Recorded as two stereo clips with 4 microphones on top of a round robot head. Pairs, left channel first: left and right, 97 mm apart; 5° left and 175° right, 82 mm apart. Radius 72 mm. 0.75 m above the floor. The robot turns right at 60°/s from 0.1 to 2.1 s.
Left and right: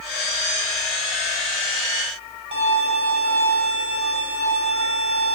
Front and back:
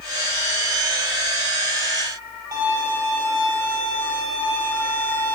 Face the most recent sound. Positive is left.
turn(degrees=-120)